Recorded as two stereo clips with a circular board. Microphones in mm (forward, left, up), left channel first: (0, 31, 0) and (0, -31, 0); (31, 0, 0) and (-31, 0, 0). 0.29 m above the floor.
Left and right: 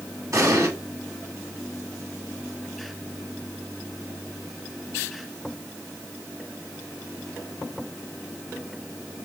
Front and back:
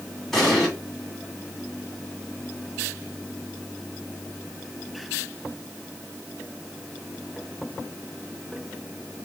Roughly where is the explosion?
Right.